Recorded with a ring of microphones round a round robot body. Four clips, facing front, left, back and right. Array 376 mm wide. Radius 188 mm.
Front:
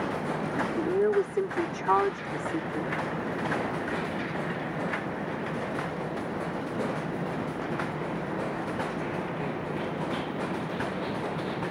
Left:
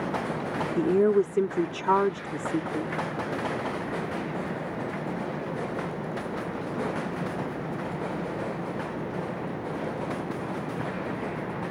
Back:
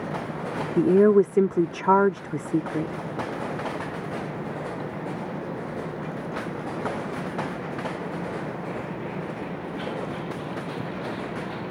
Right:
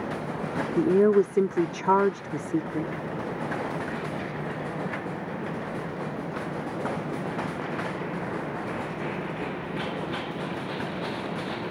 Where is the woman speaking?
165° right.